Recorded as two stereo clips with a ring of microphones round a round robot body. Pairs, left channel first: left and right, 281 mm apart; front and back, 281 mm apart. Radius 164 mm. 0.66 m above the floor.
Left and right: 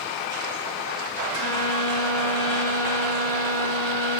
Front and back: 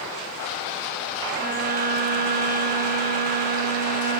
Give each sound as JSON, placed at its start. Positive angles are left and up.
{"t": 1.3, "sound": "a violin", "azimuth_deg": 120, "distance_m": 0.7}